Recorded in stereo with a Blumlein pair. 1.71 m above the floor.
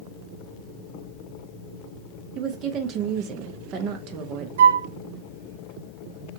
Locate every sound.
2.4 s a woman speaking: 35° right, 0.6 m
4.6 s a flute: 60° right, 0.5 m